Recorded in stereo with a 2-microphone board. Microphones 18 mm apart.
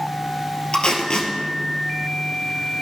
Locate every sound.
0.7 s tape being pulled: 55° left (ahead or behind), 1.4 m